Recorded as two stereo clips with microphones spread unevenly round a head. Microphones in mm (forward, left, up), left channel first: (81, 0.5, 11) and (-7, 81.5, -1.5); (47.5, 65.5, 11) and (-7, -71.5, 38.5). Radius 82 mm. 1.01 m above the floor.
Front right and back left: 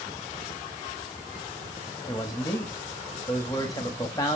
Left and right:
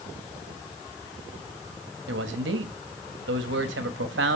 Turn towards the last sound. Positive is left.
turn(degrees=-115)